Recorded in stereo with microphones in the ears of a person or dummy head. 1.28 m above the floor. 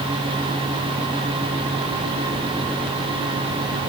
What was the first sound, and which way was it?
Only background noise.